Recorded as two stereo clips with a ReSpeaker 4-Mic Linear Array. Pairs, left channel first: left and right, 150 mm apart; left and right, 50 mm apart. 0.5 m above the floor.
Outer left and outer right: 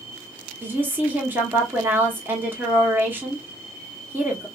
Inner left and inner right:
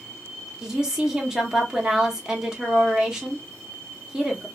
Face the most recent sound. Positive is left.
turn(degrees=-15)  # may be behind; listen again after turning